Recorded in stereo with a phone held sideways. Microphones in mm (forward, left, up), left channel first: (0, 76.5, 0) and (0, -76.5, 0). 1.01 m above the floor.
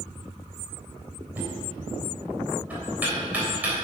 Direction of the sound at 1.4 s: 10° right (ahead or behind).